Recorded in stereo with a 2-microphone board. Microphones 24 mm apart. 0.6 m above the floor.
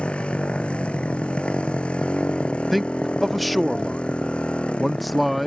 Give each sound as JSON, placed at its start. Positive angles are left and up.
{"t": 0.0, "sound": "a motorcycle", "side_deg": 55}
{"t": 2.7, "sound": "a man speaking", "side_deg": 0}